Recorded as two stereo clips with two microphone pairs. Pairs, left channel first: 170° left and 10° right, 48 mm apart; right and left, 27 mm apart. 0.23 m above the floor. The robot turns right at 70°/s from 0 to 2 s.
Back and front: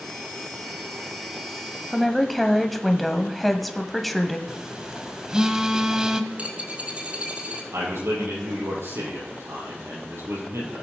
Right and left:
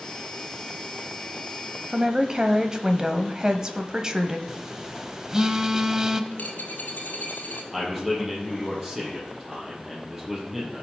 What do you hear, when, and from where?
1.9 s a woman speaking: 85° left, 1.0 m; by 4.4 s 90° left, 1.0 m
4.5 s a phone buzzing: 45° left, 0.8 m
6.3 s a dropped coin: 75° right, 2.0 m
7.7 s a man speaking: 5° left, 6 m